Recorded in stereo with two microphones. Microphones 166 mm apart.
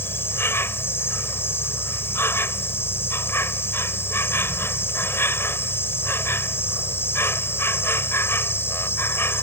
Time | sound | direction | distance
0.0 | an insect | 15° left (ahead or behind) | ?